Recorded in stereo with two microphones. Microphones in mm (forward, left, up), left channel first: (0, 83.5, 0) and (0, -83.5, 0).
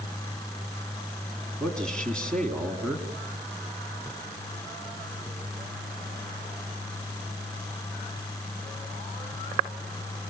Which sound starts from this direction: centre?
A man speaking, at 1.6 s.